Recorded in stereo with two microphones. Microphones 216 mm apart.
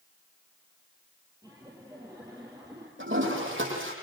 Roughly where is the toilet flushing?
Right.